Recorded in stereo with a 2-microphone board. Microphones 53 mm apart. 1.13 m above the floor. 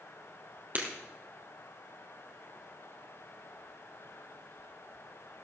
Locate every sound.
0.8 s breaking glass: 35° right (ahead or behind), 2.5 m